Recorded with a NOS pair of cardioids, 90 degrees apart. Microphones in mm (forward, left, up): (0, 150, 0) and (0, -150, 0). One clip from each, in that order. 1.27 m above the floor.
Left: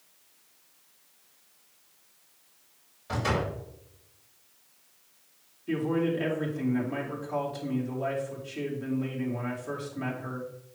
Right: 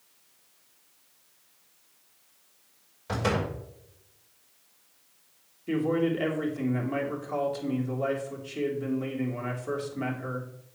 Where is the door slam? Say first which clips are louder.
Right 1 dB; 40° right, 5 m.